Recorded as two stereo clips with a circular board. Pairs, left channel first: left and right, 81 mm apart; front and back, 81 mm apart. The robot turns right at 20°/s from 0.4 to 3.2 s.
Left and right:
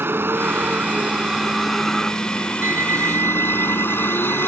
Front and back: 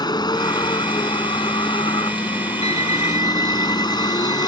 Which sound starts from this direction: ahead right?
A vehicle, at 0.0 s.